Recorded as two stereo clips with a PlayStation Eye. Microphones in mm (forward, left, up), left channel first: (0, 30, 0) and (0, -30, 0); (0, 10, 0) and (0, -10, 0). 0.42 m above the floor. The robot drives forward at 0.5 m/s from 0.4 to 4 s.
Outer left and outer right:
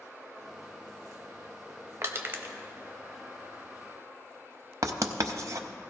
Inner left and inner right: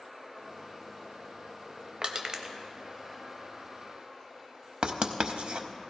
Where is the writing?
65° right (ahead or behind), 0.7 m.